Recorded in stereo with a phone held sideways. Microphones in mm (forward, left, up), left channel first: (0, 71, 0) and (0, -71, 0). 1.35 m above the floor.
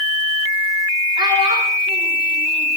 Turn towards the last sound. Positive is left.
turn(degrees=-35)  # may be behind; listen again after turning